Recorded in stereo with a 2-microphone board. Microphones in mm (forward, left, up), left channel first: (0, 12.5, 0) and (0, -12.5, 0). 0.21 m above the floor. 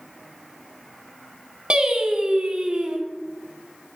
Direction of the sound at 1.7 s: 35° right (ahead or behind).